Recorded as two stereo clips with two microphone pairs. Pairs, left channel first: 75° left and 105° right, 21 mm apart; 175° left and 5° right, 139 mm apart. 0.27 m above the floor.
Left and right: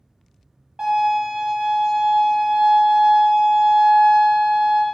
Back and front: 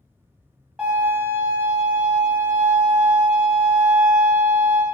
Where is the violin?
85° right, 1.1 m.